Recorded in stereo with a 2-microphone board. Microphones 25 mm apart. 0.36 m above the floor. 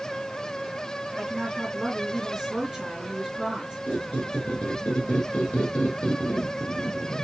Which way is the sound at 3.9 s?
65° left (ahead or behind).